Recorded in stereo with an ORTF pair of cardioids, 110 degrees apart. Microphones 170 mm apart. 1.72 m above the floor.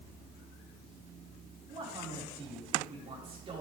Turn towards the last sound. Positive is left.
turn(degrees=-35)